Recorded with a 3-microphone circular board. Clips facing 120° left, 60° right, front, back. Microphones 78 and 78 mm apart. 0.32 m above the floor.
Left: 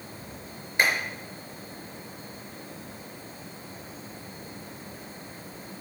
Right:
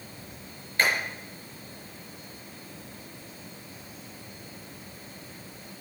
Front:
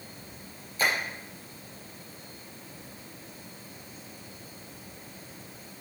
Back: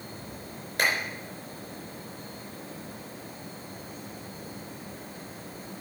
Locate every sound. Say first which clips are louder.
0.8 s a clap: left 1 dB, back 1 dB; 170° right, 4.5 m